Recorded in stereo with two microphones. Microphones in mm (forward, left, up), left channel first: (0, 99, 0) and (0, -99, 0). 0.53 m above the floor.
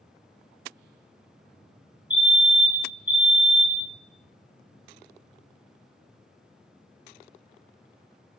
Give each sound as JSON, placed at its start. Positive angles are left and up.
{"t": 2.1, "sound": "a fire alarm", "side_deg": -10, "distance_m": 2.0}